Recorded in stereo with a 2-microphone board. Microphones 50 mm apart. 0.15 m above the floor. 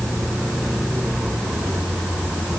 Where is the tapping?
No tapping in this recording.